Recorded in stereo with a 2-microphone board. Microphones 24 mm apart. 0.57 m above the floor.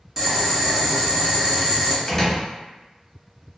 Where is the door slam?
10° left (ahead or behind), 0.7 m.